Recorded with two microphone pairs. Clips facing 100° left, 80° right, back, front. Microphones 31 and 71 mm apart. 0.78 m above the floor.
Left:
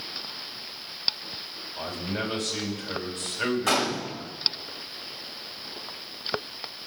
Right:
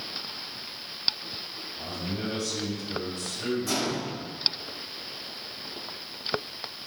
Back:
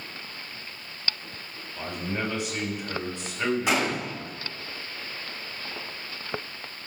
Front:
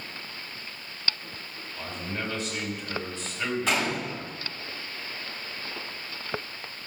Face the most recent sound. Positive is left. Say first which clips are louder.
# left 4 dB, back 2 dB
turn(degrees=105)